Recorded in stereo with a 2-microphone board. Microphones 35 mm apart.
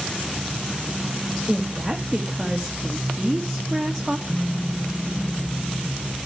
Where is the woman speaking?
5° right (ahead or behind), 1.2 m.